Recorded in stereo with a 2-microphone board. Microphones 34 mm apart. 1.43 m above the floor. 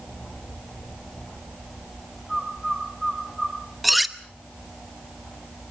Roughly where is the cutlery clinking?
Centre.